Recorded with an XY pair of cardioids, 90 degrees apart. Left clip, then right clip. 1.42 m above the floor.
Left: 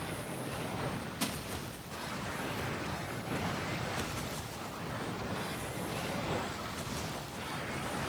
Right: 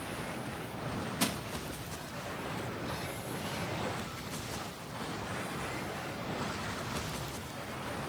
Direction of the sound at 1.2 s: 35° right.